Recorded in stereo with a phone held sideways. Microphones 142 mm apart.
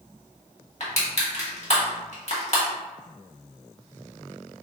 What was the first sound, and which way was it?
Crushing, 50° left (ahead or behind).